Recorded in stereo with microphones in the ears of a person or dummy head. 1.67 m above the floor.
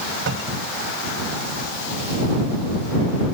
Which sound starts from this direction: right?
A cupboard door, at 0.3 s.